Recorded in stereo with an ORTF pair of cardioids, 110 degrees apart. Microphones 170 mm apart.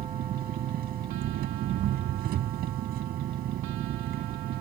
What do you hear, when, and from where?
0.0 s an engine running: 65° right